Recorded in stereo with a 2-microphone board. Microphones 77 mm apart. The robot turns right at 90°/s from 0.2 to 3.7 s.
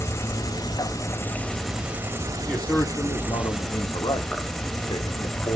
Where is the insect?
50° left, 1.1 m; by 5.6 s 5° left, 1.1 m.